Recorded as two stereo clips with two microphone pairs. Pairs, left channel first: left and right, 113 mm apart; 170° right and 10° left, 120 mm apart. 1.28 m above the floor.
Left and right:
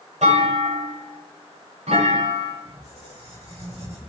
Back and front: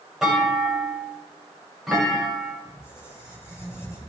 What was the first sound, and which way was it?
A clunk, 80° right.